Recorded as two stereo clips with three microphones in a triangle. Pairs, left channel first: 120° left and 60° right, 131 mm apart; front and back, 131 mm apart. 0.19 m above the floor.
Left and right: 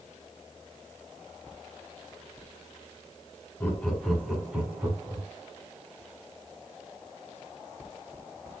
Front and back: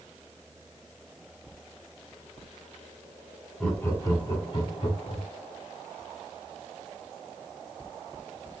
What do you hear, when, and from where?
3.6 s laughter: 70° left, 1.1 m; by 5.2 s 5° left, 1.8 m